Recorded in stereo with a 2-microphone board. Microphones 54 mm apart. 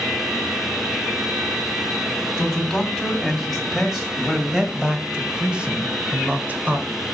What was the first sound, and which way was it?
A man speaking, centre (ahead or behind).